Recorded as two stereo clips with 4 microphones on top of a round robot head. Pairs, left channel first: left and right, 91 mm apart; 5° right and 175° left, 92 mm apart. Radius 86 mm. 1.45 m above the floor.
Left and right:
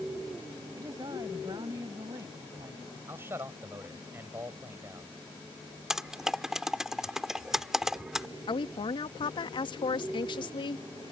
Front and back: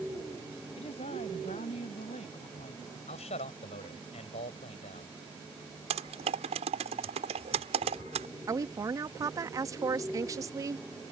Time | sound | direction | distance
0.8 | a woman speaking | 30° right | ?
3.1 | a man speaking | 20° right | ?
5.9 | typing on a keyboard | 175° right | ?
8.5 | a woman speaking | 120° left | ?